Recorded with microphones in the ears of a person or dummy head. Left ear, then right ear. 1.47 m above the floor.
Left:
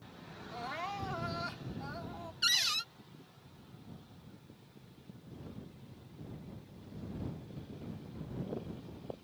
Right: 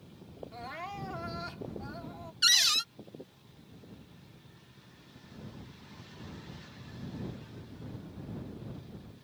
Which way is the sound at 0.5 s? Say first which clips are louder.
Left 2 dB; 5° left (ahead or behind).